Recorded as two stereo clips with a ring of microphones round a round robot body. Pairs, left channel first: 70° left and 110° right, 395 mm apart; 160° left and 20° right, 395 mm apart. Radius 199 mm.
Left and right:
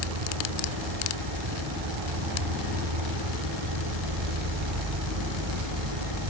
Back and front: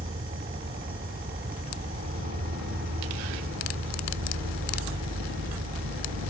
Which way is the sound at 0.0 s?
90° right.